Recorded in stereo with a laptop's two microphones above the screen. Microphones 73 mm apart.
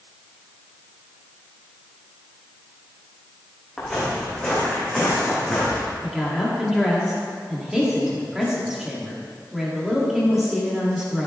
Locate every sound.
3.8 s footsteps: 5° left (ahead or behind), 4 m
6.0 s a woman speaking: 5° right (ahead or behind), 2 m